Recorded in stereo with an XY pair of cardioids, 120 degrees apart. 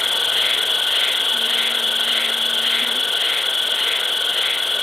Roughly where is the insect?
Ahead.